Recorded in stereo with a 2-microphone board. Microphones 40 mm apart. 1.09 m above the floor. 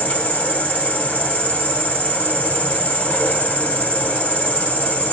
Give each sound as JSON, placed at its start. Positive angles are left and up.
{"t": 0.0, "sound": "an insect", "side_deg": 45, "distance_m": 1.0}